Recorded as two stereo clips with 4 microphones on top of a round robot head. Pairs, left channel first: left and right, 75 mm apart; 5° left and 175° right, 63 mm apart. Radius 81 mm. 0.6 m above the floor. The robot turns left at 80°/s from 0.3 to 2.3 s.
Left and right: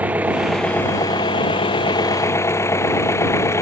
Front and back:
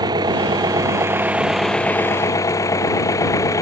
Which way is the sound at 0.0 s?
160° right.